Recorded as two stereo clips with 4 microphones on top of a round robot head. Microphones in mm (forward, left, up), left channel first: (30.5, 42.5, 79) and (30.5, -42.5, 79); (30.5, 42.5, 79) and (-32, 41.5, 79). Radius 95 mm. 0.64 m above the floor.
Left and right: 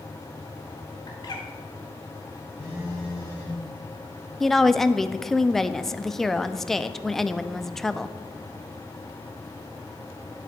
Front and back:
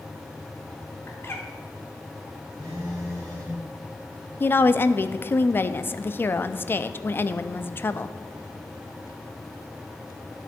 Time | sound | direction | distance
1.1 | a bird | 50° left | 1.8 m
2.6 | a phone buzzing | 155° right | 3 m
4.4 | a woman speaking | 5° left | 0.6 m